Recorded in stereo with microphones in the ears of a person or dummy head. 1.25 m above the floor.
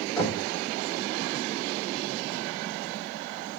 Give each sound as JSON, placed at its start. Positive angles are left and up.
{"t": 0.2, "sound": "knocking", "side_deg": 15, "distance_m": 3.5}